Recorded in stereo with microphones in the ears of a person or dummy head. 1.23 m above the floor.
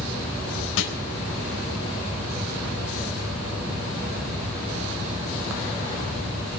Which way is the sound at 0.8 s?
80° left.